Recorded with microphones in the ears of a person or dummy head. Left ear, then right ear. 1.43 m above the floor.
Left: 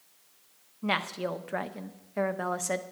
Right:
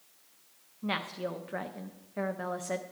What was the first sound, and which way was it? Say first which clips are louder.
A woman speaking: left 4 dB; 20° left (ahead or behind).